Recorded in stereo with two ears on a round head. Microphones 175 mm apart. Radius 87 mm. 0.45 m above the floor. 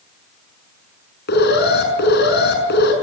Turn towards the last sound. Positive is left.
turn(degrees=60)  # may be behind; listen again after turning